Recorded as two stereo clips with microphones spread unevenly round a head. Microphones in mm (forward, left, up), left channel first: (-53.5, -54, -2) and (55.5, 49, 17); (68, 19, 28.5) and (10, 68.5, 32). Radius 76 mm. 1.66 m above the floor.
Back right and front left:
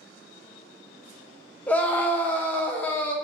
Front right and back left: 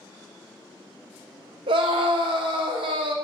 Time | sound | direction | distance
1.7 | a scream | 140° left | 0.7 m